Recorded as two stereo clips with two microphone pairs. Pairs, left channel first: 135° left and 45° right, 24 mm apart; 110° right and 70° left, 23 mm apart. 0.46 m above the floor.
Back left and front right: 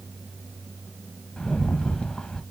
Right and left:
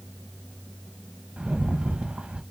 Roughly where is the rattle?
Left.